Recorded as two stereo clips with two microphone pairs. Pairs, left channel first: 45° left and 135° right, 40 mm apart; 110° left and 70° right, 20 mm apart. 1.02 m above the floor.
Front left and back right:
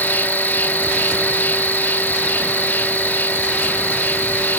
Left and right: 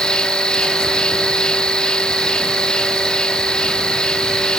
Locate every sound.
0.0 s an insect: 75° left